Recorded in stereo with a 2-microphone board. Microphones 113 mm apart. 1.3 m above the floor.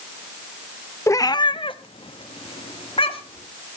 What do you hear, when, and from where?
1.1 s a cat meowing: 25° left (ahead or behind), 0.6 m; by 3.5 s 55° left (ahead or behind), 2 m